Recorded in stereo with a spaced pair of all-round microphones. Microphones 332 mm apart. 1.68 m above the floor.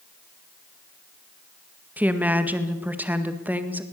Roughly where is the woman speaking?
Centre.